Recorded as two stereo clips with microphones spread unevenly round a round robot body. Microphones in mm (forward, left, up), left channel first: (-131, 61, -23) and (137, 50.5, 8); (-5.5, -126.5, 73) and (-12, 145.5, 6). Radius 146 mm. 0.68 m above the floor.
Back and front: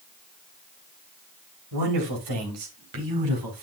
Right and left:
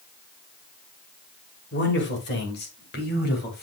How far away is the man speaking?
About 3 m.